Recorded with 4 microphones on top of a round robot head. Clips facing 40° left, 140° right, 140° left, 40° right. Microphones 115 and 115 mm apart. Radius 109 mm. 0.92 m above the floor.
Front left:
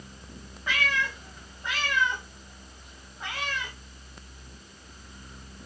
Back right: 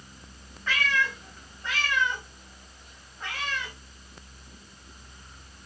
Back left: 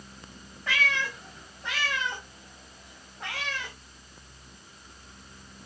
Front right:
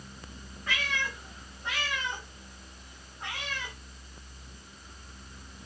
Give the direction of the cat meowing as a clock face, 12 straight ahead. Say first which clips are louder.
Back right 1 dB, back left 4 dB; 8 o'clock.